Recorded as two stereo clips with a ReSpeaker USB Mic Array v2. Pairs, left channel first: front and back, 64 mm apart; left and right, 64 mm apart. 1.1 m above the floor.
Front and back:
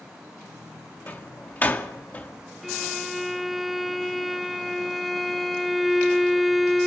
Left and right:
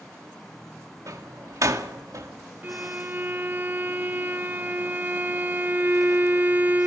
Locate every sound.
1.1 s a door slam: 60° right, 1.9 m
2.6 s a violin: 90° right, 0.8 m